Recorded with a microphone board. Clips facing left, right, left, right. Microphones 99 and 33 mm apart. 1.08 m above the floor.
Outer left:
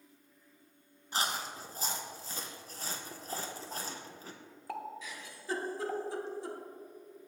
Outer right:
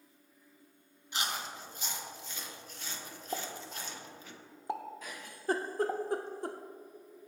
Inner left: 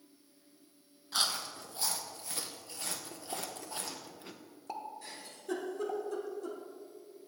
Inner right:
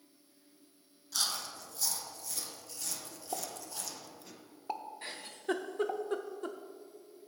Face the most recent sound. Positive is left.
turn(degrees=-50)  # may be behind; listen again after turning